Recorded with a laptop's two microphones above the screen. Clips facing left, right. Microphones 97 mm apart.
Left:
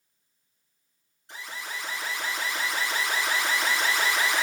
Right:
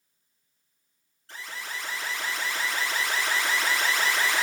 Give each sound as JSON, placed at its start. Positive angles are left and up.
{"t": 1.3, "sound": "an alarm", "side_deg": 20, "distance_m": 1.4}